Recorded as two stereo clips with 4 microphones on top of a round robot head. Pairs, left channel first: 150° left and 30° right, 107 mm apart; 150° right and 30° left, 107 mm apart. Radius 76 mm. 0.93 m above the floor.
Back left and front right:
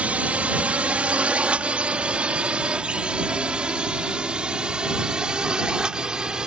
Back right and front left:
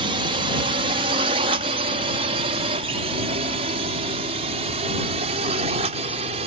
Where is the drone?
45° left; by 6.5 s 50° left.